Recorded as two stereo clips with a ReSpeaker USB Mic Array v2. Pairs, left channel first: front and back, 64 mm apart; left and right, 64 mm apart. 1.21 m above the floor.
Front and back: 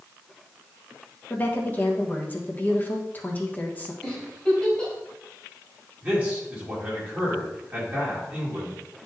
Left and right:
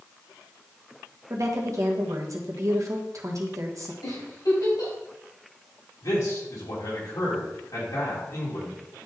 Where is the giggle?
80° left, 3.5 m.